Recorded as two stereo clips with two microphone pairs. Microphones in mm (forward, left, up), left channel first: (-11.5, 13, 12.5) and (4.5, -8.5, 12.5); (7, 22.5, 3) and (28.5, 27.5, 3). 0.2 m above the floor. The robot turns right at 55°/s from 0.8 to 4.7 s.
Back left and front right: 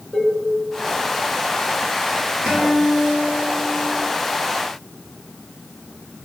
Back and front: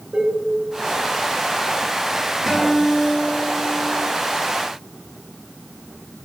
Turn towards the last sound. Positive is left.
turn(degrees=55)